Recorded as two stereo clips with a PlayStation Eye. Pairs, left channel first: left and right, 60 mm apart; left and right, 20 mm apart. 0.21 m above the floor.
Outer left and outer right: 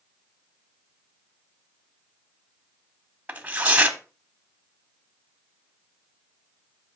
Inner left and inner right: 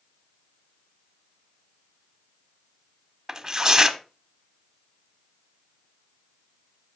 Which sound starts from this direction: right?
Tearing paper, at 3.3 s.